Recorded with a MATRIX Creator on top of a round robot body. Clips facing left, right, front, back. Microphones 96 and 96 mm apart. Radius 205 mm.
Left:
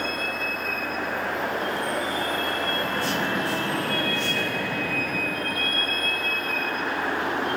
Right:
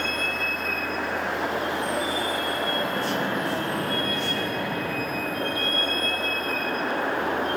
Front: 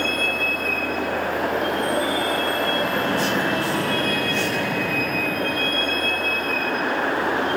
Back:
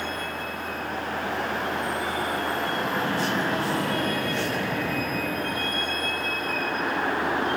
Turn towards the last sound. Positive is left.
turn(degrees=-45)